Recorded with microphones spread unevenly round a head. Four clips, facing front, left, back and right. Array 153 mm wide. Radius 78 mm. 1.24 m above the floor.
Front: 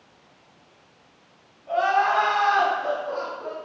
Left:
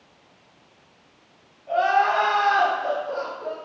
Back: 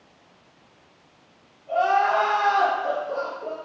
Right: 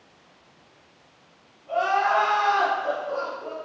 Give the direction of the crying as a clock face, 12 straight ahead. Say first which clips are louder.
Left 2 dB, back 1 dB; 10 o'clock.